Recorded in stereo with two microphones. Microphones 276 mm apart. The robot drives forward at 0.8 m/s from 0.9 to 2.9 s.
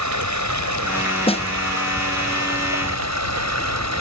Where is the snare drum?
20° left (ahead or behind); by 1.5 s 25° left (ahead or behind).